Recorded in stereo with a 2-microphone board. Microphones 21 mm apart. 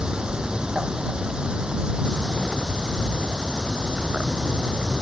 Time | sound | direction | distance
0.0 | an insect | 45° right (ahead or behind) | ?